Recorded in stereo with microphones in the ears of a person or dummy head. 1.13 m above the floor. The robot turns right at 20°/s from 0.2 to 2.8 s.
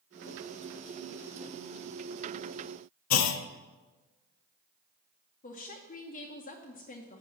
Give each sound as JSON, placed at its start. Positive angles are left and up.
{"t": 3.1, "sound": "a clunk", "side_deg": 80, "distance_m": 0.6}
{"t": 5.4, "sound": "a woman speaking", "side_deg": 35, "distance_m": 0.9}